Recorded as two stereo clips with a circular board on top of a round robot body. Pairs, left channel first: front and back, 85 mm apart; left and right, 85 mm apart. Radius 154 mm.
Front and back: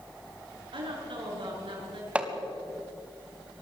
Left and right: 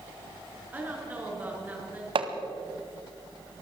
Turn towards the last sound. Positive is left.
turn(degrees=-105)